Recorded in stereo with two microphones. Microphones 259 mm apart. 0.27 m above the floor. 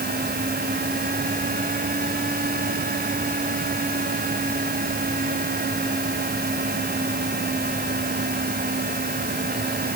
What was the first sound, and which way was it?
Only background noise.